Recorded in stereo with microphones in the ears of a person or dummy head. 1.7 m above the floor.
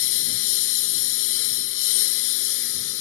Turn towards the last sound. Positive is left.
turn(degrees=75)  # may be behind; listen again after turning